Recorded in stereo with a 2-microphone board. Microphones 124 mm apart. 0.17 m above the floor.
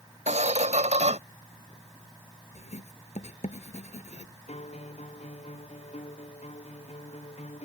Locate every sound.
0.3 s a squeak: 65° right (ahead or behind)
2.5 s writing: 65° left (ahead or behind)
4.5 s a guitar: 55° left (ahead or behind)